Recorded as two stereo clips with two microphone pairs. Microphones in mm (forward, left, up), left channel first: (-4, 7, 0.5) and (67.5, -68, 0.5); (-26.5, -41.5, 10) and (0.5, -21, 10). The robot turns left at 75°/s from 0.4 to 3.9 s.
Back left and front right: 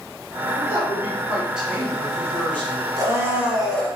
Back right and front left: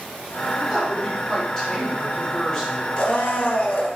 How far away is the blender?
About 0.9 m.